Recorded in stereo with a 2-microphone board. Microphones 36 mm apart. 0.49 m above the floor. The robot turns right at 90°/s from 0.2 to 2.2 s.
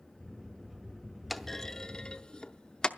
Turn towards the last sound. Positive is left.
turn(degrees=25)  # may be behind; listen again after turning